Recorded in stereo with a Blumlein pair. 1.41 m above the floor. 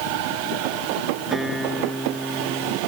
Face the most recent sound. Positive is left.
turn(degrees=0)